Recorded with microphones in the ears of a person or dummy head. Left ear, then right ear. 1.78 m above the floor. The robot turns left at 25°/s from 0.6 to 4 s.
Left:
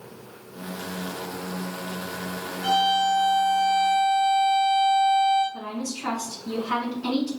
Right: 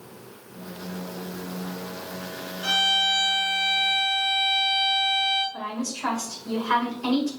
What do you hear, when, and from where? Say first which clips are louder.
2.6 s a violin: even; 105° right, 2.5 m; by 5.4 s 135° right, 2.5 m
5.5 s a woman speaking: right 1 dB; 45° right (ahead or behind), 1.7 m